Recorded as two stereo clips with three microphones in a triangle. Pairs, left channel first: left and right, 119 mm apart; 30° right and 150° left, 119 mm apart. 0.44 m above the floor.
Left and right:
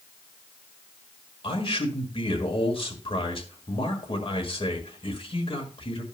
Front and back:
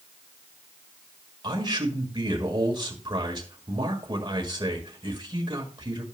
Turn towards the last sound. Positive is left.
turn(degrees=110)